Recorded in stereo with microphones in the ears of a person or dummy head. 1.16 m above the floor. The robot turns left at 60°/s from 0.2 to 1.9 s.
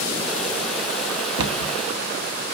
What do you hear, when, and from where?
1.4 s a cupboard door: 75° right (ahead or behind), 2.5 m; by 1.7 s 85° right, 2.5 m